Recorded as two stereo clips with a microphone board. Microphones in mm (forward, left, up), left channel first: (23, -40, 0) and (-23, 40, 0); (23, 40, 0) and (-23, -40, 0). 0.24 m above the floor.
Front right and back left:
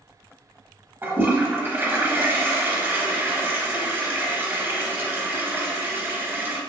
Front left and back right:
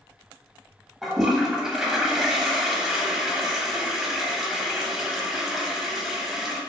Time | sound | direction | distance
1.0 | a toilet flushing | 160° left | 0.6 m